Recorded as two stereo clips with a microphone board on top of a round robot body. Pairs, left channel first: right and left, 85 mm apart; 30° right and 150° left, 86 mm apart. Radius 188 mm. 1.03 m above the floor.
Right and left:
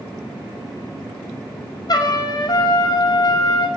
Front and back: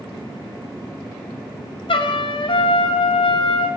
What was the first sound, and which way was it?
A trumpet, 50° right.